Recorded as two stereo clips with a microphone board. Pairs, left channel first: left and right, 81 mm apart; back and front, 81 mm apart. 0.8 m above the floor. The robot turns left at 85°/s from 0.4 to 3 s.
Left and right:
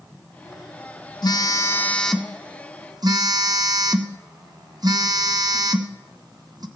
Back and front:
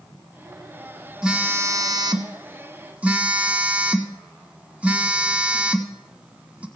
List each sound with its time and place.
1.2 s a phone buzzing: 80° left, 0.9 m; by 6.7 s 70° right, 0.9 m